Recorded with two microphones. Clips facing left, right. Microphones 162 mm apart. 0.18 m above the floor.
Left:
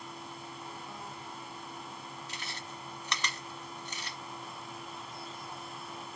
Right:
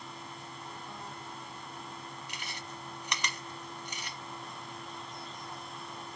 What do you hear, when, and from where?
2.3 s chewing: 15° right (ahead or behind), 1.0 m